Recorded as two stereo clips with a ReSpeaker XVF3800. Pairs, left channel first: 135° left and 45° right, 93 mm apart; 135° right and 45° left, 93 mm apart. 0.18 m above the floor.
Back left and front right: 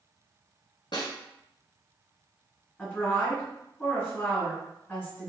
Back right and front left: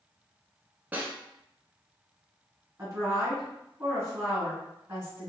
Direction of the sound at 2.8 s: 70° left.